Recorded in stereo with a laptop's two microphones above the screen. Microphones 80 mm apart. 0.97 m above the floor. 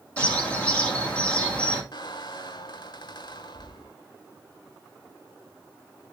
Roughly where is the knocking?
No knocking in this recording.